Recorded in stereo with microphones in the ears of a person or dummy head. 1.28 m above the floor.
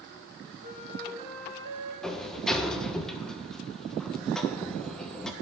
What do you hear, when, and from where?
0.6 s a flute: 50° right (ahead or behind), 2.5 m
2.0 s a sliding door: 5° left (ahead or behind), 1.2 m